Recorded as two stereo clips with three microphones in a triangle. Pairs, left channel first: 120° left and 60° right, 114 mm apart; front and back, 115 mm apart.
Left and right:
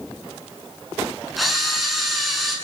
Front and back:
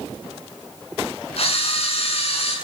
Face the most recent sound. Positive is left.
turn(degrees=30)